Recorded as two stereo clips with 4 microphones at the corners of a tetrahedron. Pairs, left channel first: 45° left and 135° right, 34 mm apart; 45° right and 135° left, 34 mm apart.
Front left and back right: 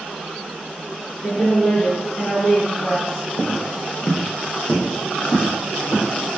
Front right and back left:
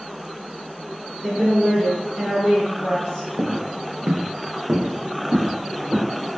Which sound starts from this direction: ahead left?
A woman speaking, at 1.2 s.